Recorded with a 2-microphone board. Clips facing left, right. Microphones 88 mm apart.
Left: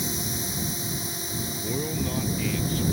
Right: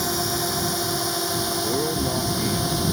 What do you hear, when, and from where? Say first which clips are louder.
0.0 s a drone: right 7 dB; 65° right (ahead or behind); by 2.9 s 75° right (ahead or behind)
1.6 s a man speaking: right 3 dB; 30° right (ahead or behind)